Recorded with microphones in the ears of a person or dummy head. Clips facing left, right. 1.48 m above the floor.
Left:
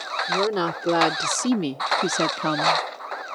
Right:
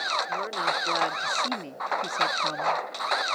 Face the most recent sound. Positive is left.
turn(degrees=85)